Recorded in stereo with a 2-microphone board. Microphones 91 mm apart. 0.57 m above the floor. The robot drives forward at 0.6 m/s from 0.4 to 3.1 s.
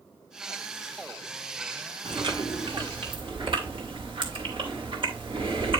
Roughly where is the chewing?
Right.